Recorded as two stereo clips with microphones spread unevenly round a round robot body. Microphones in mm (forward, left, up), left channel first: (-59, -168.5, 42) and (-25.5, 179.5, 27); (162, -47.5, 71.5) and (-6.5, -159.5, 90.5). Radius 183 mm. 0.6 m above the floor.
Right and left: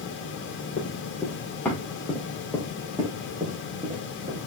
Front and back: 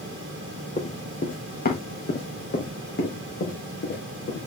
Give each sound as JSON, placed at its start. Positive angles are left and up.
{"t": 0.8, "sound": "running footsteps", "azimuth_deg": -25, "distance_m": 2.5}